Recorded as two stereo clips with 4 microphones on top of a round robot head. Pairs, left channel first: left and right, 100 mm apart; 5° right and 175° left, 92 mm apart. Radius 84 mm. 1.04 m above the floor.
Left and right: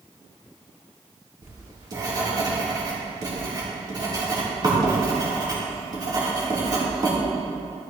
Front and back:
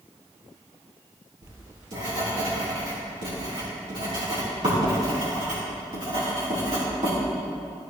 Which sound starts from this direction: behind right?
Writing, at 1.4 s.